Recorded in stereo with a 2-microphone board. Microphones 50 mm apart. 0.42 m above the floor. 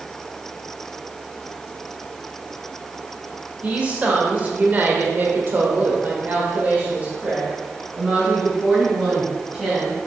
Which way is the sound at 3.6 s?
25° right (ahead or behind).